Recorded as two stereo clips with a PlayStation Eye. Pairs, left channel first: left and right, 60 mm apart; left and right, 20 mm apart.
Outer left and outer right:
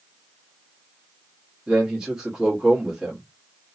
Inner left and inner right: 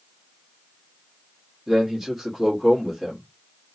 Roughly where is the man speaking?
Centre.